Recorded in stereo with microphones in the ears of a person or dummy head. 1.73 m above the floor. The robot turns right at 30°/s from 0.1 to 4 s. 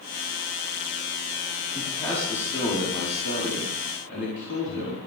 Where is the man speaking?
5° right, 5 m; by 5.0 s 65° left, 5 m.